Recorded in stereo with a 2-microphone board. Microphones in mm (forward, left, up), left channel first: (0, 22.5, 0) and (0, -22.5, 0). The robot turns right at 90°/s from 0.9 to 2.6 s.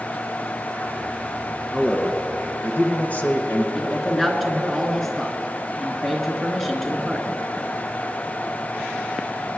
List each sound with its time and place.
1.7 s a man speaking: 15° right, 1.6 m; by 3.6 s 65° left, 1.6 m
3.8 s a man speaking: 5° left (ahead or behind), 1.8 m